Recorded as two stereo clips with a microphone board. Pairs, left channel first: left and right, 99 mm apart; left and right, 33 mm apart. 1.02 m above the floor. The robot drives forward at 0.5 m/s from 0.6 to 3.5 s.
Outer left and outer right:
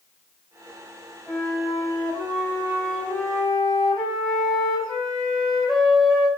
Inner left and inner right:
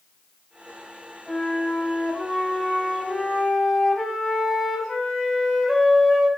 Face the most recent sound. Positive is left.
turn(degrees=0)  # may be behind; listen again after turning